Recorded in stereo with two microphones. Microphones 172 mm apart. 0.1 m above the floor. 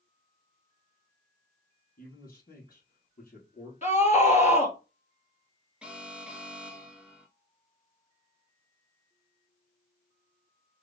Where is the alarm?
5° right (ahead or behind), 1.1 m.